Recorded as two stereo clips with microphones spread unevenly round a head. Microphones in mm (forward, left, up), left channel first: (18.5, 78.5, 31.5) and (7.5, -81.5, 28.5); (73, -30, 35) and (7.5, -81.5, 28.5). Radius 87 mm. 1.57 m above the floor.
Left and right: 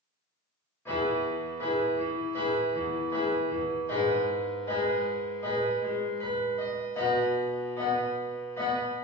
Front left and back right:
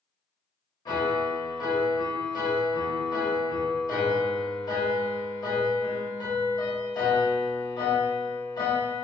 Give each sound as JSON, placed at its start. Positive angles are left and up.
{"t": 0.8, "sound": "a piano", "azimuth_deg": 10, "distance_m": 1.0}